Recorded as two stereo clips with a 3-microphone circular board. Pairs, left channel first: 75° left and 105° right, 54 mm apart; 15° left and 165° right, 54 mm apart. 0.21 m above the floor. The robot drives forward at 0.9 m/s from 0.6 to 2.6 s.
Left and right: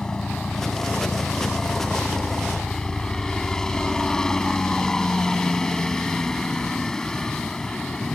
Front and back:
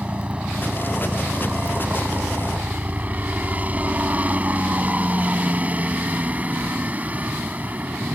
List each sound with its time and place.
0.0 s a helicopter: 140° left; by 8.2 s 150° left